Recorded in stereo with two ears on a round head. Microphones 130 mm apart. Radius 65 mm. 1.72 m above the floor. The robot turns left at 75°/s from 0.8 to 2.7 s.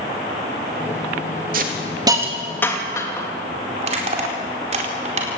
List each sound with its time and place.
1.5 s a hiss: 65° right (ahead or behind), 3 m; by 3.3 s 20° left (ahead or behind), 3 m
3.8 s crushing: 45° right (ahead or behind), 4.5 m